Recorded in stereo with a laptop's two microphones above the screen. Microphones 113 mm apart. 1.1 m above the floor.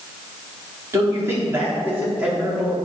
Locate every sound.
0.9 s a man speaking: 25° right (ahead or behind), 3.5 m; by 2.8 s 5° right (ahead or behind), 3.5 m